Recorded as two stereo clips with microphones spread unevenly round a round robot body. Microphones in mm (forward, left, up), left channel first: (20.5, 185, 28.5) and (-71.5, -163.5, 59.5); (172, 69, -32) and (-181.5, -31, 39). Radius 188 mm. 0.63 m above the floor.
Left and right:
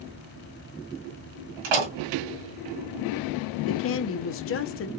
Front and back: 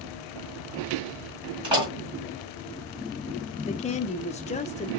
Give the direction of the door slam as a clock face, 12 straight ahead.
3 o'clock.